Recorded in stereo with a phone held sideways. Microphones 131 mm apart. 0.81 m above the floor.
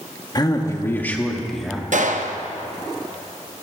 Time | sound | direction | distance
0.3 | a man speaking | 30° left (ahead or behind) | 1.1 m
1.9 | a gunshot | 70° right (ahead or behind) | 0.6 m